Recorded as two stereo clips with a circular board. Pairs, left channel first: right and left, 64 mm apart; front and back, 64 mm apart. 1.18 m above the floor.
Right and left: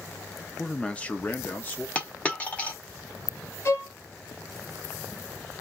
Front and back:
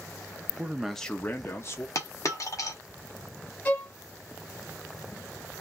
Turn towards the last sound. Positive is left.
turn(degrees=-55)